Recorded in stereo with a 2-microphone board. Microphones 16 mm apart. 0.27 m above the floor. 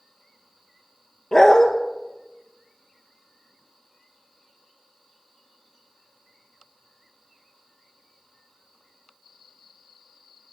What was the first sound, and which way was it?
A dog barking, 35° left (ahead or behind).